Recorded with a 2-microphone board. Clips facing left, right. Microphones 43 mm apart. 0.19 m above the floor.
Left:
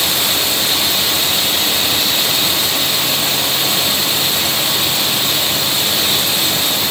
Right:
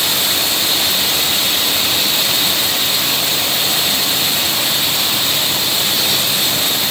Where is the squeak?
No squeak in this recording.